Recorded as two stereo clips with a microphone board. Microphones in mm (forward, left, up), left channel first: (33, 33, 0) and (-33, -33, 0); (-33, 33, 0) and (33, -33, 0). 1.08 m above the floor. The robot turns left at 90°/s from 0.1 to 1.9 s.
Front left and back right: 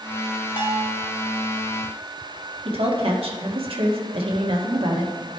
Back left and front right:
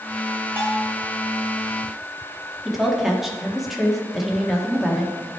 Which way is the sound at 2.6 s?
135° right.